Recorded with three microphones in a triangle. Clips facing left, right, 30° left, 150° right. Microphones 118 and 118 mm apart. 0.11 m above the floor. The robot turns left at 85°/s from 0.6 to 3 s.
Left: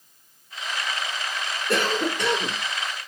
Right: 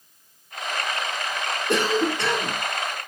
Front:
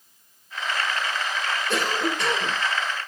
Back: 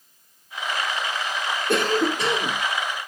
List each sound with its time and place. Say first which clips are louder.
1.7 s a cough: right 2 dB, back 6 dB; 150° right, 2.5 m; by 2.6 s 130° left, 2.5 m